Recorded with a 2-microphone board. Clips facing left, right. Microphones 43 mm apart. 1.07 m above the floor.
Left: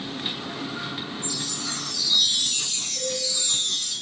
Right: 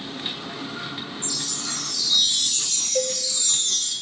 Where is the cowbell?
80° right, 1.5 m.